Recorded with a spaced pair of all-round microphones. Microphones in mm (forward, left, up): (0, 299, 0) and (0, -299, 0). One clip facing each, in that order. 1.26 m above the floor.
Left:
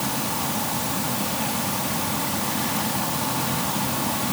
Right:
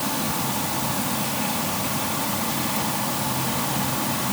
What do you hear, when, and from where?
Only background noise.